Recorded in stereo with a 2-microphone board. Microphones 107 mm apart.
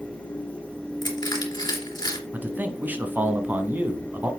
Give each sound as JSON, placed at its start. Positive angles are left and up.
{"t": 1.0, "sound": "crushing", "side_deg": 40, "distance_m": 2.5}
{"t": 2.3, "sound": "a man speaking", "side_deg": -15, "distance_m": 1.1}